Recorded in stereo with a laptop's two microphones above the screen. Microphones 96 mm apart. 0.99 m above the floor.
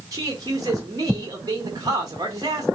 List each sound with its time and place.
0.1 s a man speaking: 40° right (ahead or behind), 1.2 m